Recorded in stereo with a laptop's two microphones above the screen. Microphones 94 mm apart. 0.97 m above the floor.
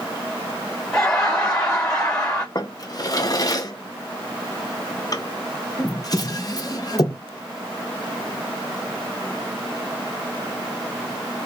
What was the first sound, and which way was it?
Laughter, 5° left (ahead or behind).